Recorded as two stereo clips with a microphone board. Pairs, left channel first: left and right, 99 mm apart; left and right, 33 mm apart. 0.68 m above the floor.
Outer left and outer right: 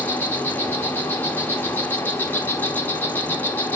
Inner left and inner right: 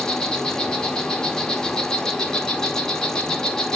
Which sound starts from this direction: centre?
An insect, at 0.0 s.